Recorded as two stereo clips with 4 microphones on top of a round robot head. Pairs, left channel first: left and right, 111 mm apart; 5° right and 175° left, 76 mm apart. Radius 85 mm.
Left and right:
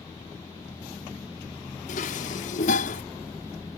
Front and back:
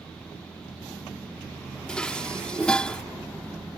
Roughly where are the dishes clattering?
Left.